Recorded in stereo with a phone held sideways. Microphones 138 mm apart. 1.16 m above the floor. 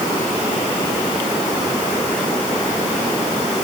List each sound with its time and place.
Only background noise.